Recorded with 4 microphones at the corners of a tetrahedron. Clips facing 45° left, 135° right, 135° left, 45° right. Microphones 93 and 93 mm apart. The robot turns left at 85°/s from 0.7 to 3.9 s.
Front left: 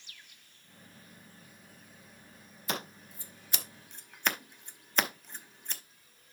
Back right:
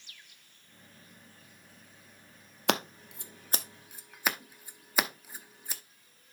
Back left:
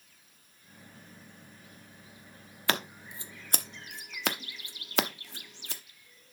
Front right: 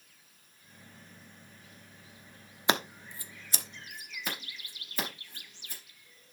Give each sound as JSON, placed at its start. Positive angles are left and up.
{"t": 2.7, "sound": "scissors", "azimuth_deg": -115, "distance_m": 0.8}